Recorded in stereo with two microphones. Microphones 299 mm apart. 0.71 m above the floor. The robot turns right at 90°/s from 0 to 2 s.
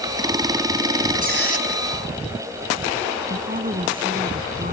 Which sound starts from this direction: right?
A woman speaking, at 3.3 s.